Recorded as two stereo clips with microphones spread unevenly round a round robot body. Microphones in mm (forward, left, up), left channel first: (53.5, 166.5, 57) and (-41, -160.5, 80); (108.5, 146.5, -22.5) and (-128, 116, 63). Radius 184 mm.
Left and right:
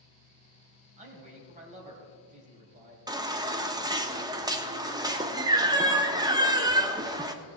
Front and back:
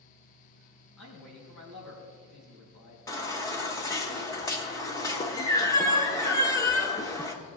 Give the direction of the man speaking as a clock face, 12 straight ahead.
1 o'clock.